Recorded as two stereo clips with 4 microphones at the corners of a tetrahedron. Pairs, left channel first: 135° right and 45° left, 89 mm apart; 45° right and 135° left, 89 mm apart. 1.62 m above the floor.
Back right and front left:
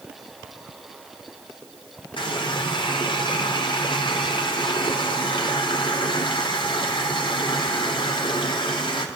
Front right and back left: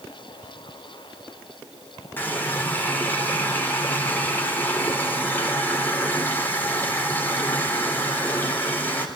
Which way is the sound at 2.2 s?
110° right.